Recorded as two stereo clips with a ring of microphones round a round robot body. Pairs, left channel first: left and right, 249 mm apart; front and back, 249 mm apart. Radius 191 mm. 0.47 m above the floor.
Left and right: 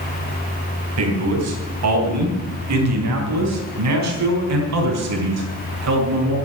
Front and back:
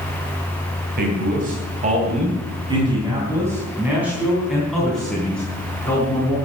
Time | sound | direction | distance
1.0 | a man speaking | 120° right | 3.5 m